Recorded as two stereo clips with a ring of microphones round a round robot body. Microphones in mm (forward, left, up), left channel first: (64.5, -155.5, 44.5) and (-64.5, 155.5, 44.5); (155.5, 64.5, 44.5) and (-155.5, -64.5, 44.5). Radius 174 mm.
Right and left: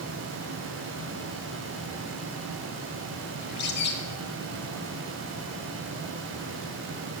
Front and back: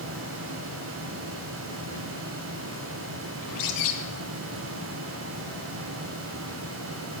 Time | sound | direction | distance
3.4 | a bird | 5° right | 1.3 m